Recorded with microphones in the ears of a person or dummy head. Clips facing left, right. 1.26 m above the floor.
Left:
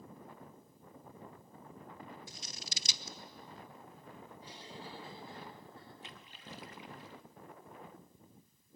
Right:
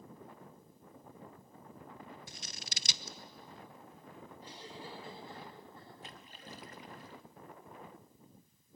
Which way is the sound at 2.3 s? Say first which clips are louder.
Even; 50° right (ahead or behind).